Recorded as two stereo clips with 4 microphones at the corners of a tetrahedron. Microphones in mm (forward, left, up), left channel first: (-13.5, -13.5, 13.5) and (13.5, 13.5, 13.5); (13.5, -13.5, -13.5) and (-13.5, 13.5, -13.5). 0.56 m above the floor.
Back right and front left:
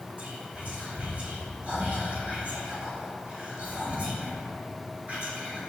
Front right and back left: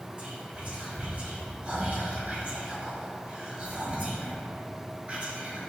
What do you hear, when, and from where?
0.2 s whispering: 85° left, 1.5 m